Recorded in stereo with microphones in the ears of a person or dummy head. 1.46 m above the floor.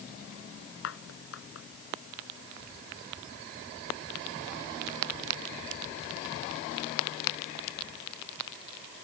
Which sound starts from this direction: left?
A clap, at 0.8 s.